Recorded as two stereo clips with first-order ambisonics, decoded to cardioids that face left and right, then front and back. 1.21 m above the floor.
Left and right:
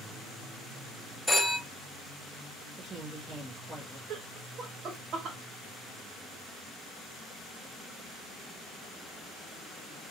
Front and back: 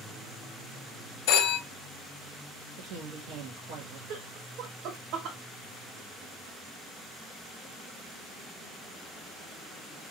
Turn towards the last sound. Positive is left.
turn(degrees=-145)